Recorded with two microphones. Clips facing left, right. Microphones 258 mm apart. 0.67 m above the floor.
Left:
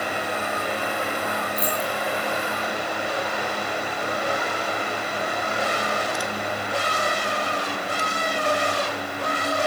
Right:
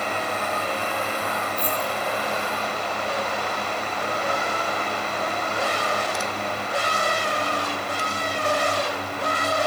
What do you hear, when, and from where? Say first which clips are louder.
1.6 s keys jangling: left 1 dB; 80° left, 8 m